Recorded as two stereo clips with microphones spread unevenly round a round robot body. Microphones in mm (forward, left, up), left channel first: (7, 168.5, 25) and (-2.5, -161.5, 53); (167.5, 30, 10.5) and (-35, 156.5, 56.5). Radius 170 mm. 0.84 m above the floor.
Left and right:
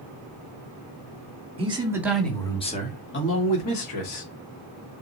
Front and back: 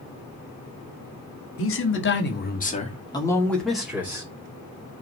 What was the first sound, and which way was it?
A man speaking, 15° right.